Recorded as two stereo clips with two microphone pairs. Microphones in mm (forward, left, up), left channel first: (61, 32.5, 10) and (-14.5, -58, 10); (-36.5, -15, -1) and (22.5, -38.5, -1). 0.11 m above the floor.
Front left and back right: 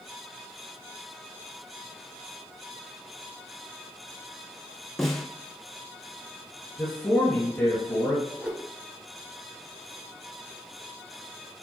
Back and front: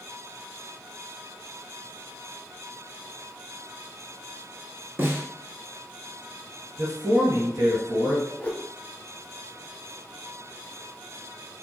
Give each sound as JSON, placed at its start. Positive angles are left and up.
{"t": 5.0, "sound": "a snare drum", "azimuth_deg": -35, "distance_m": 0.9}
{"t": 6.8, "sound": "a man speaking", "azimuth_deg": -20, "distance_m": 1.9}
{"t": 8.4, "sound": "a whoosh", "azimuth_deg": 155, "distance_m": 0.6}